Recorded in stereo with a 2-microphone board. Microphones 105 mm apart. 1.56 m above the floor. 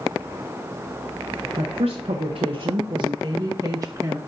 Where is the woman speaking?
75° right (ahead or behind), 1.2 m; by 4.2 s 20° right (ahead or behind), 1.3 m.